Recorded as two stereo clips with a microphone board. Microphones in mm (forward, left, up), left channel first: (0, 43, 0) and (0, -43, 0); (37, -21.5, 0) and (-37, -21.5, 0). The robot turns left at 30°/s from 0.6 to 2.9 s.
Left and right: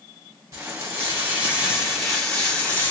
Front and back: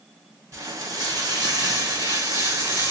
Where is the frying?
140° right, 2.5 m; by 2.9 s 150° left, 2.5 m.